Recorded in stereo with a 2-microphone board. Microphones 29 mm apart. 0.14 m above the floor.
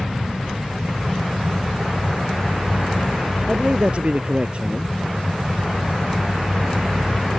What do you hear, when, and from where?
3.5 s a man speaking: 40° right (ahead or behind)